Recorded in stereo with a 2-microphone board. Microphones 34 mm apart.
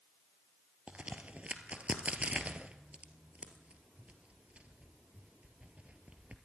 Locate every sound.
0.9 s a crack: 40° right (ahead or behind), 1.6 m